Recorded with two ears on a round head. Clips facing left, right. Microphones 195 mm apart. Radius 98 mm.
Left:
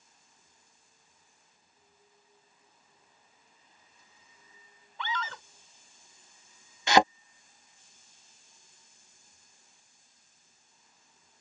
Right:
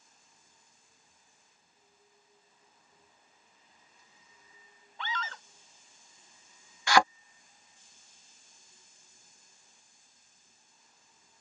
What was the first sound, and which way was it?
A scream, 80° left.